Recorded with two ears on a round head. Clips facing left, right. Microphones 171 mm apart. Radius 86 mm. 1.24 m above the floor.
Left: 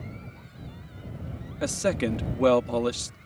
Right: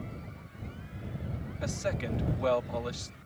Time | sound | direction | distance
1.6 | a man speaking | 65° left (ahead or behind) | ?